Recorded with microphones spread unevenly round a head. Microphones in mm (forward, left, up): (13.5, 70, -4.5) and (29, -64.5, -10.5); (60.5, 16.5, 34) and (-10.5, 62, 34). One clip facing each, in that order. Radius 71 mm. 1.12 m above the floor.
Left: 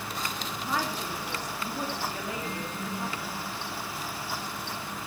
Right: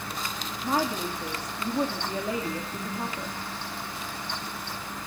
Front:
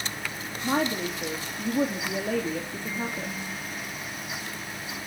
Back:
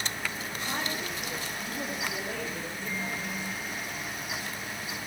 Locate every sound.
0.6 s a woman speaking: 25° right, 2.5 m